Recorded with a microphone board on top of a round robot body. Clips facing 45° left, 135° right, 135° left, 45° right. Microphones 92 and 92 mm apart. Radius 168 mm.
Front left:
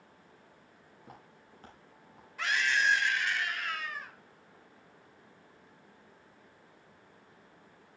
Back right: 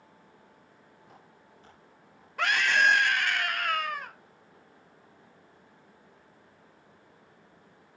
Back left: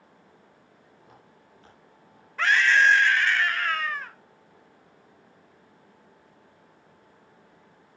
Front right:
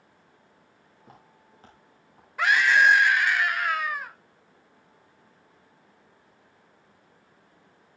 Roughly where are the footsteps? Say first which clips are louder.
Front left 3 dB, front right 3 dB; ahead.